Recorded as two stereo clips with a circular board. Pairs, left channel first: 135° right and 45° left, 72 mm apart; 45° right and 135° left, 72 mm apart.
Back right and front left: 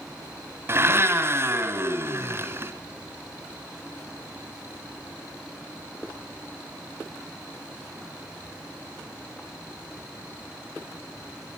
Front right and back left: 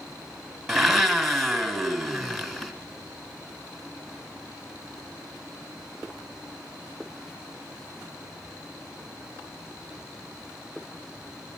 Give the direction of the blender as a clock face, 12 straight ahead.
11 o'clock.